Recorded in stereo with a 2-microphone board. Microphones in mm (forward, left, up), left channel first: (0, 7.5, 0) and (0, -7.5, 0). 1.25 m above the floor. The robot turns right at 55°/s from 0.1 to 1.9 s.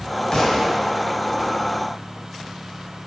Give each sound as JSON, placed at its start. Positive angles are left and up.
{"t": 0.3, "sound": "a thud", "side_deg": 50, "distance_m": 1.4}